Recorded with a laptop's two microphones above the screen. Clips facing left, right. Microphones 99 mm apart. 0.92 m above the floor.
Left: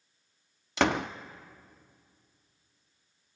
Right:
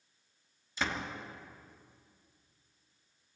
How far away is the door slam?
About 0.8 m.